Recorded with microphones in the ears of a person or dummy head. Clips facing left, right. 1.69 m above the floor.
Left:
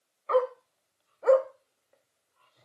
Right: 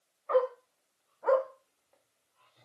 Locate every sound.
0.3 s a dog barking: 35° left (ahead or behind), 1.8 m; by 2.7 s centre (ahead or behind), 1.7 m